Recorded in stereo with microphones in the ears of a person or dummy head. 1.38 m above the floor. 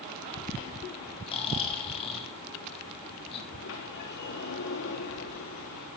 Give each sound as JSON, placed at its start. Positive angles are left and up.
{"t": 1.3, "sound": "snoring", "side_deg": 35, "distance_m": 4.0}
{"t": 3.5, "sound": "a sliding door", "side_deg": 60, "distance_m": 4.5}